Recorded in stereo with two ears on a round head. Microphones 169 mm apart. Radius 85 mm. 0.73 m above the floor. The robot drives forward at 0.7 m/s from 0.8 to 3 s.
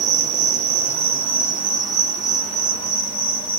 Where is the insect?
35° right (ahead or behind), 0.9 m; by 3.6 s 15° right (ahead or behind), 2 m.